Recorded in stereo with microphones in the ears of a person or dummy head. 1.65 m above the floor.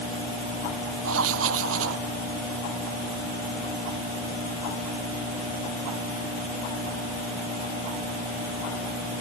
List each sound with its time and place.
1.0 s writing: 80° right